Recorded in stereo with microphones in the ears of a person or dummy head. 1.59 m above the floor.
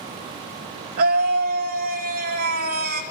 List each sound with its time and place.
1.0 s a scream: 50° right (ahead or behind), 2.5 m